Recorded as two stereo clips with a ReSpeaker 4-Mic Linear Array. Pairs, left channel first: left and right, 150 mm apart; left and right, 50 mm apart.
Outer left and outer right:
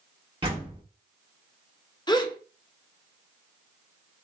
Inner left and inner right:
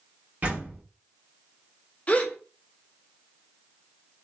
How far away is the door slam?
About 1.8 m.